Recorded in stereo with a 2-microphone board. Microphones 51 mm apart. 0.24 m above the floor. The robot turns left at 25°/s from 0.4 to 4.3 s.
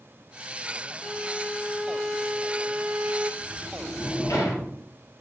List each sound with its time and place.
1.0 s a violin: 20° left, 0.7 m; by 3.3 s 40° right, 0.7 m
3.4 s a sliding door: 65° left (ahead or behind), 3 m; by 4.8 s 80° left, 3 m